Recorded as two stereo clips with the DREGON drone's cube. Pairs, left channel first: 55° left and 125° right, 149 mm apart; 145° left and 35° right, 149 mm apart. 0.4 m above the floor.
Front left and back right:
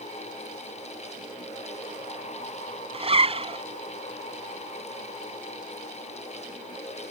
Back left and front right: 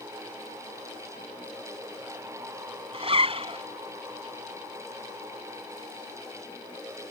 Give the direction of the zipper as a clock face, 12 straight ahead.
3 o'clock.